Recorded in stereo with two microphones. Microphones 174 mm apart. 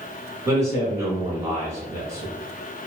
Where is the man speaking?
15° right (ahead or behind), 1.3 m.